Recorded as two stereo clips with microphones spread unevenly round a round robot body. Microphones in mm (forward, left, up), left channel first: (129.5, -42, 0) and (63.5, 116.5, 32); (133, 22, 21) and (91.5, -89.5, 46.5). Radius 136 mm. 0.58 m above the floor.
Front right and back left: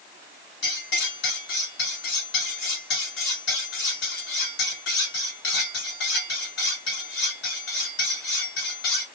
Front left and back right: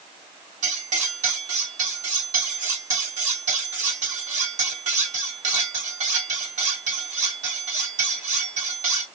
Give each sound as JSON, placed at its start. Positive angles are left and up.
{"t": 0.6, "sound": "cutlery clinking", "azimuth_deg": -95, "distance_m": 2.0}